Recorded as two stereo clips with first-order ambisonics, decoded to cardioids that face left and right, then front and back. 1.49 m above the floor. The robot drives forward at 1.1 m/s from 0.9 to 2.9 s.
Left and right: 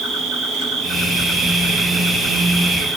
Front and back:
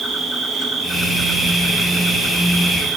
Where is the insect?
110° right, 3.5 m; by 3.0 s 140° right, 4.5 m.